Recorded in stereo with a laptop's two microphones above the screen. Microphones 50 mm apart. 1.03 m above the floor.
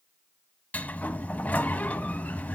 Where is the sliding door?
30° left (ahead or behind), 1.2 m.